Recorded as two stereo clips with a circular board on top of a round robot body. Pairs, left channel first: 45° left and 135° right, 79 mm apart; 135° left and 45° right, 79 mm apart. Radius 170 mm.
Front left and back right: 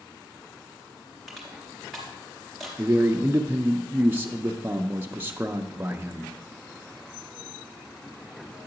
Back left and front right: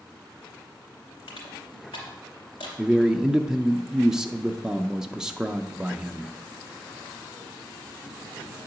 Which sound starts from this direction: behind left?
Crushing, at 1.3 s.